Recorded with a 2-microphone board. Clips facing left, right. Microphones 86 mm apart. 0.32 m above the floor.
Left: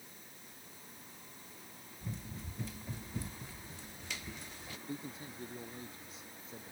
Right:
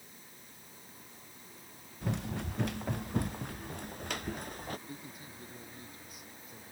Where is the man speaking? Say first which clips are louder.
Left 3 dB; 25° left (ahead or behind).